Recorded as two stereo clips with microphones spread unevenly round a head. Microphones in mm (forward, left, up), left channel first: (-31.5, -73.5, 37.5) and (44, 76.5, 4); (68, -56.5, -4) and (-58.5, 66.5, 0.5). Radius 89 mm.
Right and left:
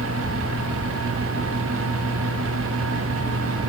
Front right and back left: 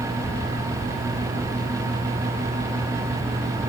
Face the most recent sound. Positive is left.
No sound to turn to.